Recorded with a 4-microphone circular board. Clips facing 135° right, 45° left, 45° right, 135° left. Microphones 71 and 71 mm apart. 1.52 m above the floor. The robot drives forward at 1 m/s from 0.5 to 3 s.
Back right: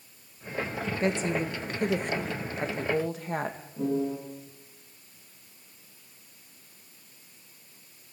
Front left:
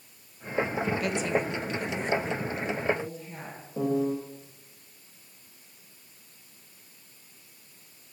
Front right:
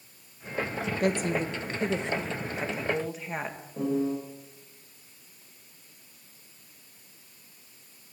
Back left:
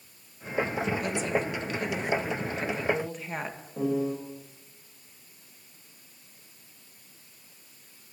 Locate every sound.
1.0 s a woman speaking: 75° right, 1.8 m; by 3.6 s 130° right, 2.5 m
3.8 s a piano: 50° left, 7 m